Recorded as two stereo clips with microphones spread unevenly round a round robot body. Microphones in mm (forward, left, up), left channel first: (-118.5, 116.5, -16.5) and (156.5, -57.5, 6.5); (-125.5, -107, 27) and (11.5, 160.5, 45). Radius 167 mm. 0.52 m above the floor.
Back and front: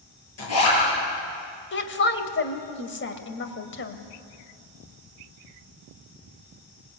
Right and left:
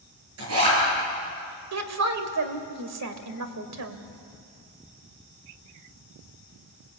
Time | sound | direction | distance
0.4 | a zipper | 105° left | 9 m
1.7 | a woman speaking | 95° left | 2.5 m